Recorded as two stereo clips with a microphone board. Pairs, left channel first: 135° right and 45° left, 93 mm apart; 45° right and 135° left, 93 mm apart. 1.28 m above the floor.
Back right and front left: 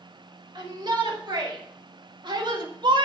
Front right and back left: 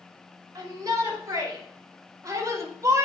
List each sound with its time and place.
0.6 s a shout: 85° left, 5.5 m; by 3.1 s 80° left, 1.6 m